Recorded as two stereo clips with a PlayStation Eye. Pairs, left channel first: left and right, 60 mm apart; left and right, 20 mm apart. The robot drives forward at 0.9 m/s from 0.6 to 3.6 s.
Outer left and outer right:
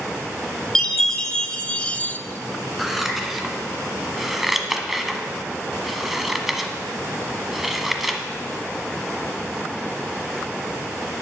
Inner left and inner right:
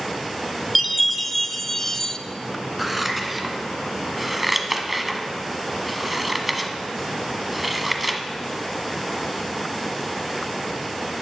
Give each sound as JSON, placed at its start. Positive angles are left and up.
{"t": 0.8, "sound": "a chime", "side_deg": 10, "distance_m": 1.4}
{"t": 2.8, "sound": "scissors", "side_deg": 0, "distance_m": 2.0}